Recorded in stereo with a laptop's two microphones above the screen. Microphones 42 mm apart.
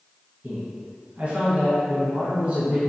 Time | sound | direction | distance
0.4 | a man speaking | 35° right (ahead or behind) | 1.0 m